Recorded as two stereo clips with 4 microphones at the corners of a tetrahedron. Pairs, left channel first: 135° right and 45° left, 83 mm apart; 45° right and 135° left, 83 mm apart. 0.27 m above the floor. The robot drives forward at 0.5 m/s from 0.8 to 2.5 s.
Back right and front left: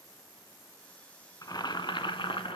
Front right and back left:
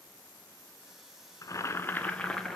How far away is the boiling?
About 0.7 m.